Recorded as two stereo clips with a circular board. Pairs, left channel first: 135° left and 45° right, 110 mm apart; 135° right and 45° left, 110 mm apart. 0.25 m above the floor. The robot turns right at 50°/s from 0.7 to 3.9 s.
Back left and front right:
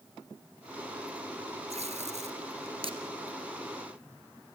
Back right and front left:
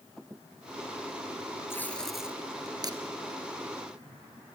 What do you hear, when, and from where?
1.7 s tape being pulled: 65° right, 1.8 m; by 3.0 s straight ahead, 1.8 m